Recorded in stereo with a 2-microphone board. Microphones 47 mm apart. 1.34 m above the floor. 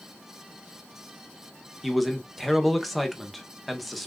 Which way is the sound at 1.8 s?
Centre (ahead or behind).